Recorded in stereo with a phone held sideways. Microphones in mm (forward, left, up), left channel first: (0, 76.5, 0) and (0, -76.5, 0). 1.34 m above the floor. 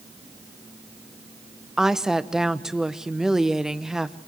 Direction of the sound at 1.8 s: 5° right (ahead or behind).